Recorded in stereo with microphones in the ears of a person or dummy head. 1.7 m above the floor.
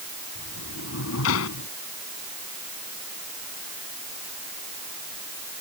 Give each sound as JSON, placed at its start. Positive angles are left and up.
{"t": 0.3, "sound": "a sliding door", "side_deg": 75}